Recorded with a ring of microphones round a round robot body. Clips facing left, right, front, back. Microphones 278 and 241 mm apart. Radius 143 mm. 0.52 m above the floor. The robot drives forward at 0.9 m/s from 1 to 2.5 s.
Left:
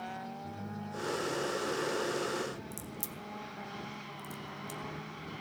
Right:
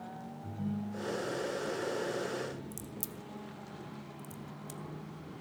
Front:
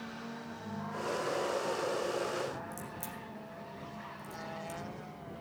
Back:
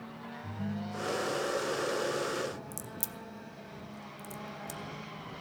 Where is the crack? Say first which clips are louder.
Even, even; 170° right, 0.7 m.